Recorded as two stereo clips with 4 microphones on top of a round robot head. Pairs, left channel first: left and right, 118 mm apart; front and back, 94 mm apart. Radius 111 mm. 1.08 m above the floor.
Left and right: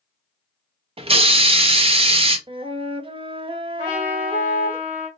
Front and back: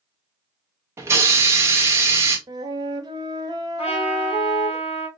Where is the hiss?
120° right, 0.7 m.